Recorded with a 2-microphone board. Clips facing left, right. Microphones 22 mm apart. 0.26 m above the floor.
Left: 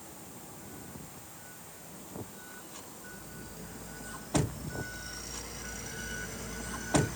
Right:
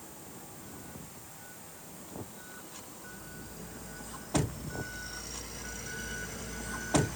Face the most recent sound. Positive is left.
No sound to turn to.